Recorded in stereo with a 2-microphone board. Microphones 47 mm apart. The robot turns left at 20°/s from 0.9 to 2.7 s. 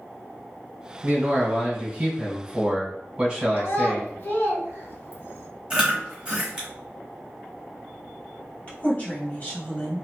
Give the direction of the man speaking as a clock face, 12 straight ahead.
3 o'clock.